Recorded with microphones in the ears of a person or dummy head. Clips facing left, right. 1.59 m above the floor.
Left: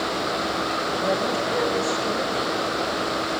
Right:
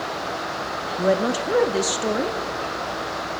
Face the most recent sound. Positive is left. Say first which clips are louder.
# right 5 dB
turn(degrees=-50)  # may be behind; listen again after turning